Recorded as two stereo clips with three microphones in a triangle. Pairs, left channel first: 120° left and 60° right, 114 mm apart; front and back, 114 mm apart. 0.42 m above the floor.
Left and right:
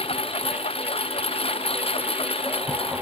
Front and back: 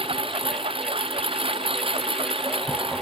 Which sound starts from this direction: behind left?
A lawn mower, at 0.0 s.